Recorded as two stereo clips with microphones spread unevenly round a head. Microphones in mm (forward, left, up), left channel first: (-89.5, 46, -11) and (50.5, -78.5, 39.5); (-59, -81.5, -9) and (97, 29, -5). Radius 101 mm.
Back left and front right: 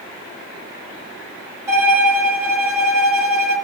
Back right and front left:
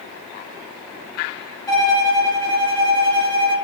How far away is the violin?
About 1.0 m.